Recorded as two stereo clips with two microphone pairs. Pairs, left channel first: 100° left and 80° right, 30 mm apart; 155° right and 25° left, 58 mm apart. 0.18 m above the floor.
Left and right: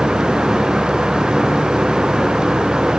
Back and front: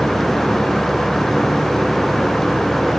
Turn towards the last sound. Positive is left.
No sound to turn to.